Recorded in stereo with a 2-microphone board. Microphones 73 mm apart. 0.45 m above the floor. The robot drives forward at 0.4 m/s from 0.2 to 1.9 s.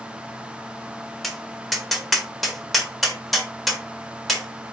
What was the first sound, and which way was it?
Tapping, centre (ahead or behind).